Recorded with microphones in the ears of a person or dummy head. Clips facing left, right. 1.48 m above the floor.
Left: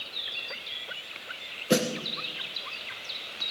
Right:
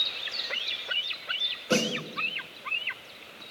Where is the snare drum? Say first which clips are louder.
Left 2 dB; 20° left (ahead or behind), 1.1 m.